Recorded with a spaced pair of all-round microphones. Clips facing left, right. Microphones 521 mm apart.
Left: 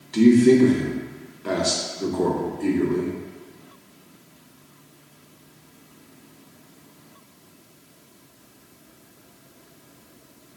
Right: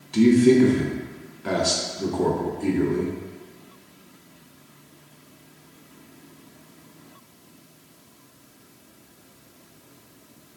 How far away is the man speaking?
About 0.5 m.